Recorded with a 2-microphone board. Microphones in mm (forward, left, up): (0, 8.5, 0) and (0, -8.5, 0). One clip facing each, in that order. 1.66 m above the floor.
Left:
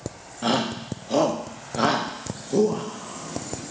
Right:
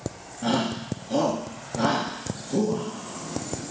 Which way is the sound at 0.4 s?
60° left (ahead or behind).